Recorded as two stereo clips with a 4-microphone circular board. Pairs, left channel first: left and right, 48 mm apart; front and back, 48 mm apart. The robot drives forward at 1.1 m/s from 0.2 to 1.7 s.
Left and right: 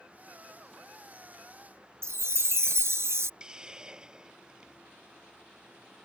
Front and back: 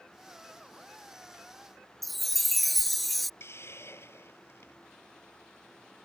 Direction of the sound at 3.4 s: 20° right.